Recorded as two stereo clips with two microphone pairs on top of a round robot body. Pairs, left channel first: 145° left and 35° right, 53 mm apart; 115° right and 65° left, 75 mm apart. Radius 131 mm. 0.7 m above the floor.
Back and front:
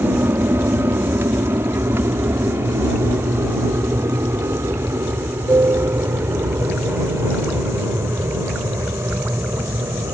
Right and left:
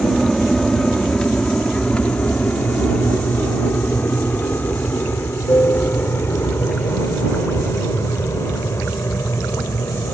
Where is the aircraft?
30° right; by 10.2 s 65° right.